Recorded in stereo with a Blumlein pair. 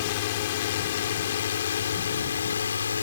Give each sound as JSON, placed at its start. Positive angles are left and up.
{"t": 0.0, "sound": "a drone", "azimuth_deg": 50}